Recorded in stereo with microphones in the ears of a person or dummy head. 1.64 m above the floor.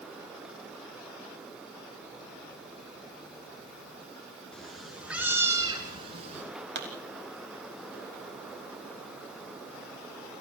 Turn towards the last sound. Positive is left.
turn(degrees=-65)  # may be behind; listen again after turning